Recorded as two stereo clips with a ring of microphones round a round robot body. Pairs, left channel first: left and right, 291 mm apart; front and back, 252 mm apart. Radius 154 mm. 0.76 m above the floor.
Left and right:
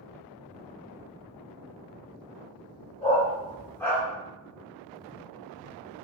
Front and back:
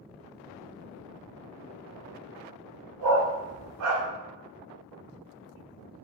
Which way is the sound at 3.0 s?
160° left.